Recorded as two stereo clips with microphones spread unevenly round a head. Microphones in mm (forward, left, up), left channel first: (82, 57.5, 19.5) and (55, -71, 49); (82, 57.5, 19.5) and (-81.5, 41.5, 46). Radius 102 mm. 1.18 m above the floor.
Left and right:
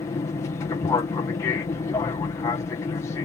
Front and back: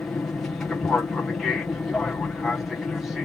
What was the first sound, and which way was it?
An aircraft, 80° left.